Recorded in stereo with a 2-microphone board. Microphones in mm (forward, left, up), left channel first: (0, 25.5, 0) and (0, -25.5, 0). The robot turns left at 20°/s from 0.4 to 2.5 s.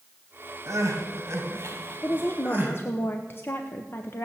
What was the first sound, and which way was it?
Crying, 110° right.